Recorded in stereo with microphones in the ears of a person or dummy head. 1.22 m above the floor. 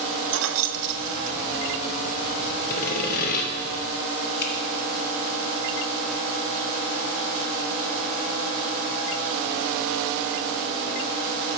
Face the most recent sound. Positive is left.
turn(degrees=50)  # may be behind; listen again after turning